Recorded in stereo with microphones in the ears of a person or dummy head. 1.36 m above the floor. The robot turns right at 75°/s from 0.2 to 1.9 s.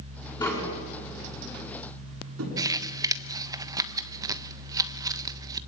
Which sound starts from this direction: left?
Tapping, at 0.4 s.